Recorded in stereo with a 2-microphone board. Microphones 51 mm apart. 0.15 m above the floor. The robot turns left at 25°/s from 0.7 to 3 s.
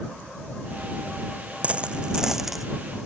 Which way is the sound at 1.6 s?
25° right (ahead or behind).